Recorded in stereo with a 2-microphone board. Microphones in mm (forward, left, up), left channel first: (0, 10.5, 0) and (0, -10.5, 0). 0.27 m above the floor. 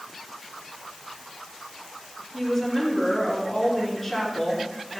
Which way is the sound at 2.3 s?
Centre (ahead or behind).